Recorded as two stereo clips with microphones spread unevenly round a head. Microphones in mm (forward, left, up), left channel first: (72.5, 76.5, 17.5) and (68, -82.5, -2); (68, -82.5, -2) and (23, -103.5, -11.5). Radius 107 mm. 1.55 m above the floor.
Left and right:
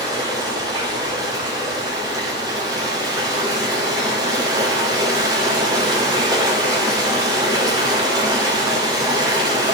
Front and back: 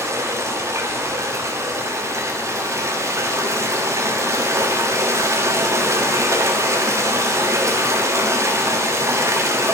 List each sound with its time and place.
0.0 s running water: 165° right, 1.4 m